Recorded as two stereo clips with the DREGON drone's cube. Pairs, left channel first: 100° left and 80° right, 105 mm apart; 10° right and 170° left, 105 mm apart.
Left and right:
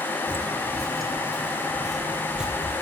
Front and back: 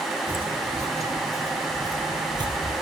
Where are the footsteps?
165° left, 0.9 m; by 2.7 s 160° right, 1.8 m.